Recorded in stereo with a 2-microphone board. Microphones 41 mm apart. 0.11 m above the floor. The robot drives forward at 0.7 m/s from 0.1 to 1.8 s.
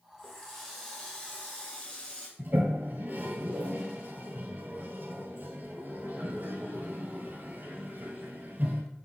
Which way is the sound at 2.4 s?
45° right (ahead or behind).